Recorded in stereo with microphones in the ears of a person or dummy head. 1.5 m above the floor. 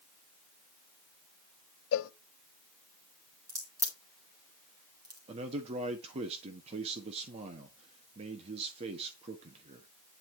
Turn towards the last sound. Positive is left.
turn(degrees=-35)  # may be behind; listen again after turning